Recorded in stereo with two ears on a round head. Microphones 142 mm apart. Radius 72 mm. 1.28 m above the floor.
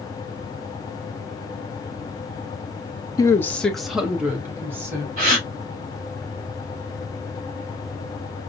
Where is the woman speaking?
25° left (ahead or behind), 0.5 m; by 5.1 s 15° right (ahead or behind), 1.4 m.